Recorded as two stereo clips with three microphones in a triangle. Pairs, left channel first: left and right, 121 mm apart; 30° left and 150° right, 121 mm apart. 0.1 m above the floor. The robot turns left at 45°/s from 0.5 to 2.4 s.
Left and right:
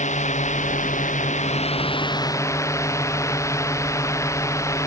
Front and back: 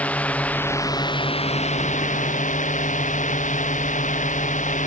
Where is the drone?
110° left; by 4.9 s 25° left.